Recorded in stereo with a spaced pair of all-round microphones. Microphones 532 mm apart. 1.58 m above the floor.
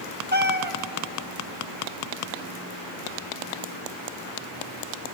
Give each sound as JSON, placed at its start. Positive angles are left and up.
{"t": 0.3, "sound": "a cat meowing", "side_deg": -20, "distance_m": 0.9}